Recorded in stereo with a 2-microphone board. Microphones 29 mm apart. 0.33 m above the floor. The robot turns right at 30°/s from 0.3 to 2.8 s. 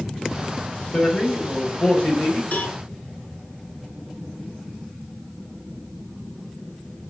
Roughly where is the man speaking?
Ahead left.